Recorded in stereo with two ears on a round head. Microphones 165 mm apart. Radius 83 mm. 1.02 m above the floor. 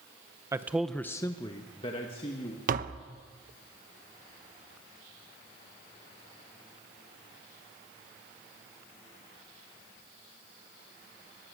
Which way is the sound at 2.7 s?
50° right (ahead or behind).